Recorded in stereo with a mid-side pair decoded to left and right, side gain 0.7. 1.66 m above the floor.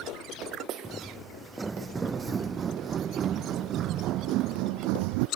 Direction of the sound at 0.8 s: 10° right.